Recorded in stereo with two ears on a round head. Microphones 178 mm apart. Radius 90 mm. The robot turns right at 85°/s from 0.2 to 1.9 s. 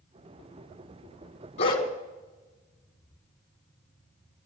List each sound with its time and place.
1.6 s a dog barking: 35° left (ahead or behind), 1.9 m; by 1.9 s 15° left (ahead or behind), 1.9 m